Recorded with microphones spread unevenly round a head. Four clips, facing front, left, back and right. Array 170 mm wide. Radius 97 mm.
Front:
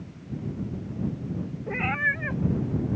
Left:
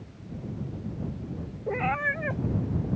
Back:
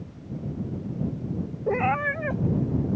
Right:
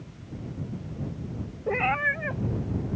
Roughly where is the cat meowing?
Behind.